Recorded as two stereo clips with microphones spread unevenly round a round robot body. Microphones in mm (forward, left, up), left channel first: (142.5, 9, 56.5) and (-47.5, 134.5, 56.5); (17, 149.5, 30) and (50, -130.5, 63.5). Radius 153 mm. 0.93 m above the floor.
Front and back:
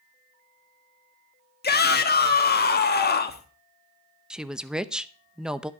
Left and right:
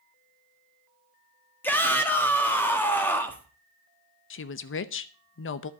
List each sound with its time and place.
1.6 s a shout: 15° left, 1.4 m
4.3 s a woman speaking: 60° left, 0.8 m